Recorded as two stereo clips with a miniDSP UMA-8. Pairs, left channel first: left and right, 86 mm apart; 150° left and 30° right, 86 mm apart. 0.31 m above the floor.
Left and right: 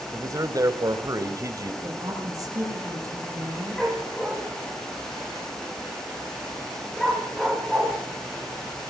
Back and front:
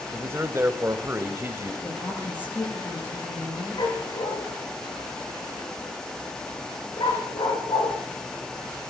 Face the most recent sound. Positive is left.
turn(degrees=175)